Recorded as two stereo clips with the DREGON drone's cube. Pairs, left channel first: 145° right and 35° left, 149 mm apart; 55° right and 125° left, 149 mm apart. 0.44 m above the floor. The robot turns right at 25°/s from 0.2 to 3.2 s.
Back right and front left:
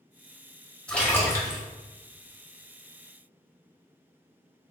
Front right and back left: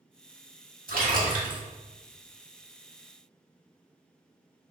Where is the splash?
130° left, 1.0 m; by 1.6 s 150° left, 1.0 m.